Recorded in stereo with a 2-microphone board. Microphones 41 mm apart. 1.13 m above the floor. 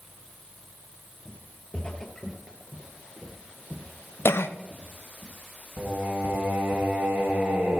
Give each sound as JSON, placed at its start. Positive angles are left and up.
{"t": 1.2, "sound": "footsteps", "side_deg": 40, "distance_m": 1.4}
{"t": 4.2, "sound": "a cough", "side_deg": 80, "distance_m": 0.7}
{"t": 5.8, "sound": "singing", "side_deg": -65, "distance_m": 1.5}